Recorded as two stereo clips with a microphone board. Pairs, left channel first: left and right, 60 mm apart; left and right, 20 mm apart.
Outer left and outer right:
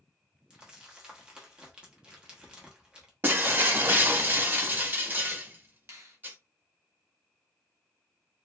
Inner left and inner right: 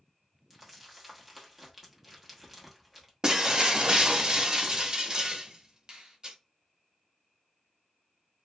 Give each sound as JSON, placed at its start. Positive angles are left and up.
{"t": 0.5, "sound": "crumpling", "side_deg": -15, "distance_m": 1.0}
{"t": 3.2, "sound": "breaking glass", "side_deg": -35, "distance_m": 0.6}
{"t": 5.9, "sound": "a finger snap", "side_deg": -50, "distance_m": 0.7}